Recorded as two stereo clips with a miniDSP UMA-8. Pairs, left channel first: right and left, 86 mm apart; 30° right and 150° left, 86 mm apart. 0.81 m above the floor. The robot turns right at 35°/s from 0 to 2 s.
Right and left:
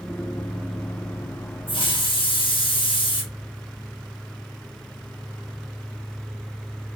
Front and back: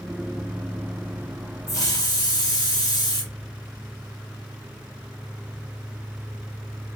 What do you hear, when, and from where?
1.7 s a hiss: 85° right, 1.4 m; by 3.2 s 75° right, 1.4 m